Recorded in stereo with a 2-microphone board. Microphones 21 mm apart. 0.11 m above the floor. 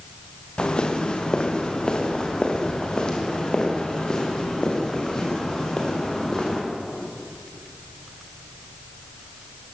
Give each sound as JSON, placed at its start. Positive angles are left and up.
{"t": 0.6, "sound": "footsteps", "side_deg": 40, "distance_m": 4.0}